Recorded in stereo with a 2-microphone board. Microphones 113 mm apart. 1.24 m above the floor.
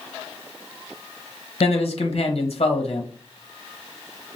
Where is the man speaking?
60° left (ahead or behind), 1.1 m.